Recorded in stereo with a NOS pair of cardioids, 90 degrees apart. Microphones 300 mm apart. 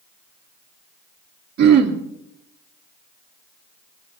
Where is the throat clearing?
65° right, 2.5 m.